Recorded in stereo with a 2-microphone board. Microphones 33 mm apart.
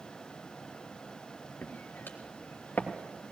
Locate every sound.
1.6 s footsteps: 80° left, 2.5 m; by 3.3 s 55° left (ahead or behind), 2.5 m